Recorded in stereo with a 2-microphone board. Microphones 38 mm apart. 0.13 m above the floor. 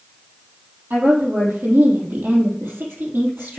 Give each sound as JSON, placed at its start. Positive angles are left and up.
{"t": 0.9, "sound": "a woman speaking", "side_deg": -70, "distance_m": 3.5}